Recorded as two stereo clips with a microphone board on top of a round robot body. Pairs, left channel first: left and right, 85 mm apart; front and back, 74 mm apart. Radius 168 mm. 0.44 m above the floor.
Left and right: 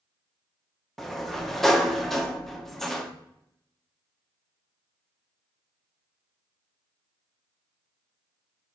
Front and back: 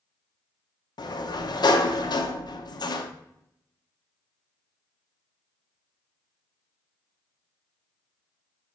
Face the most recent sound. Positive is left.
turn(degrees=0)